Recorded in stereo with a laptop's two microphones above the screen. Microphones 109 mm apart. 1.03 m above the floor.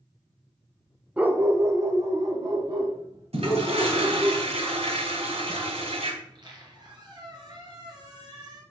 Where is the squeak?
40° right (ahead or behind), 3.5 m.